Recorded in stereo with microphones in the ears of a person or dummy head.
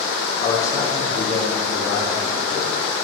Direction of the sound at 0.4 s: 25° left (ahead or behind).